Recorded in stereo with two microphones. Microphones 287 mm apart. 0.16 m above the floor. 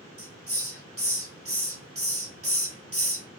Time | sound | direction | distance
0.2 | a hiss | 55° right (ahead or behind) | 1.0 m